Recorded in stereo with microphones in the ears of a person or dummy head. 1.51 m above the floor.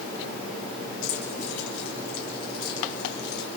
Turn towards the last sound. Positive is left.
turn(degrees=55)  # may be behind; listen again after turning